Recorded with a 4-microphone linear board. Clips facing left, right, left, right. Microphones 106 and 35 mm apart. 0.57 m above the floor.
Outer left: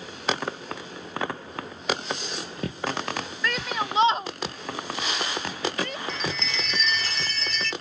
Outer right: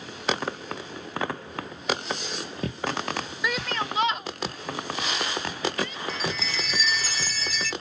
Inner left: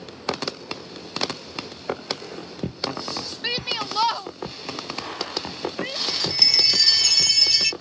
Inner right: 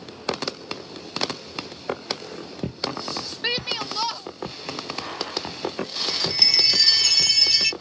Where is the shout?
10° right (ahead or behind); by 6.0 s 65° left (ahead or behind).